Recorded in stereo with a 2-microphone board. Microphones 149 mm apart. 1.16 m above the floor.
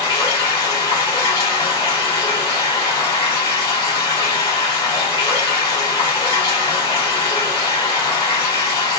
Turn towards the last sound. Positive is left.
turn(degrees=40)  # may be behind; listen again after turning